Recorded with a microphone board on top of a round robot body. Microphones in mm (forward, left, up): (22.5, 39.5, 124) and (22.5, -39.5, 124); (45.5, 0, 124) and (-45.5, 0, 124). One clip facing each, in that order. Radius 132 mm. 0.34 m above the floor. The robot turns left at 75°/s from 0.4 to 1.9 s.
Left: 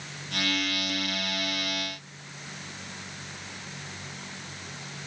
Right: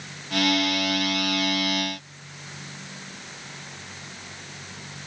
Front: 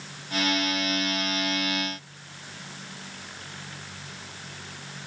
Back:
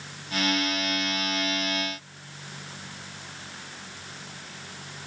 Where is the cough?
No cough in this recording.